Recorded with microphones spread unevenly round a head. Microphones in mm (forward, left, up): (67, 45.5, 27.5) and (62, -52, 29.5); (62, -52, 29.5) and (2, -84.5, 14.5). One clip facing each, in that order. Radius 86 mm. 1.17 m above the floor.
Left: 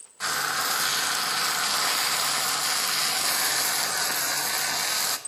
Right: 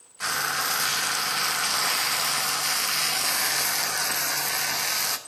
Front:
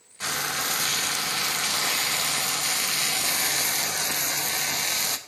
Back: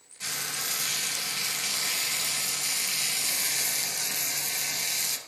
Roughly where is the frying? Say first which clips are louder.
Even, front 8 dB; ahead.